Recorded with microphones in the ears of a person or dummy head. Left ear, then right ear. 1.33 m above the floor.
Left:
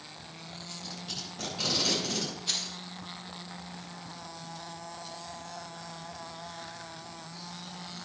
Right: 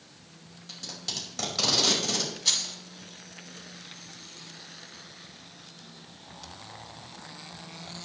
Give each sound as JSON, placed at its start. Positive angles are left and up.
{"t": 0.7, "sound": "tape being pulled", "side_deg": -65, "distance_m": 5.0}
{"t": 2.5, "sound": "keys jangling", "side_deg": -70, "distance_m": 7.0}